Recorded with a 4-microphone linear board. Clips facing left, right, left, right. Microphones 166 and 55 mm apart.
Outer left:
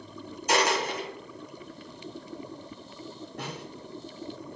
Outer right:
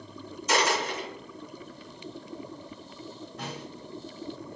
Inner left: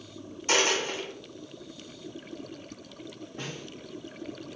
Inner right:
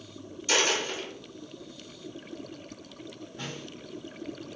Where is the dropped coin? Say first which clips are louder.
Outer left 1 dB, inner left 1 dB; 50° left (ahead or behind), 1.5 m.